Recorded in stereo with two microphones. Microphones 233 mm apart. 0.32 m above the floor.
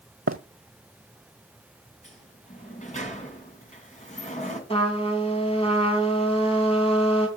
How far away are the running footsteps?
About 0.8 m.